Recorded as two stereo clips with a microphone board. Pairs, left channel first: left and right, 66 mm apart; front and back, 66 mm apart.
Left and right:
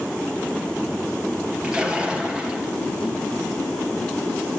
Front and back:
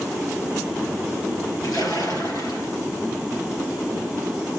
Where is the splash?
15° right, 6 m.